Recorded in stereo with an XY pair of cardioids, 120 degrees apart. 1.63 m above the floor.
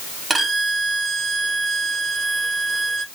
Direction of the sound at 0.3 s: 20° right.